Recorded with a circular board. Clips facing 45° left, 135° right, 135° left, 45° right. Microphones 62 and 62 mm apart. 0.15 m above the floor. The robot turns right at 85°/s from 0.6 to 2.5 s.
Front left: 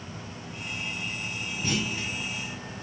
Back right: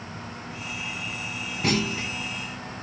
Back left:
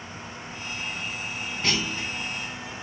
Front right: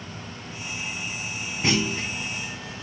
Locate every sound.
1.6 s a clunk: 115° right, 3 m; by 2.1 s 75° right, 3 m